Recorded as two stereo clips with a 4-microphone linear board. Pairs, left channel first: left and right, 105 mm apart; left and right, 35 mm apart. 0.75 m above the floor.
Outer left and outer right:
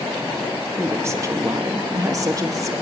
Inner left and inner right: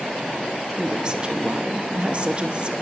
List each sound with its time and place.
0.8 s a woman speaking: 20° right (ahead or behind), 1.2 m; by 2.7 s 30° right (ahead or behind), 1.6 m